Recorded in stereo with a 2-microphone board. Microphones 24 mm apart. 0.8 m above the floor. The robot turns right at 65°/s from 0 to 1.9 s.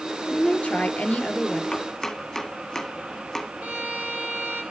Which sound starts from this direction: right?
A violin, at 3.6 s.